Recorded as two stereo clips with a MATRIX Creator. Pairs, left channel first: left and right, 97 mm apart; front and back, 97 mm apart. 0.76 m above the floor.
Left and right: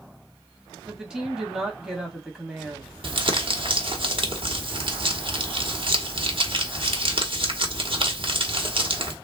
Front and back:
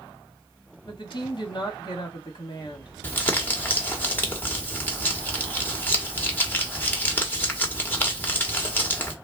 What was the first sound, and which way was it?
A woman speaking, 10° right.